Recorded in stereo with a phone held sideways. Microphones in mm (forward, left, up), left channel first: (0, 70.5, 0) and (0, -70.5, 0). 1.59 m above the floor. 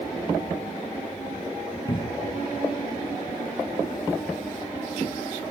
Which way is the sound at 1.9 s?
30° left (ahead or behind).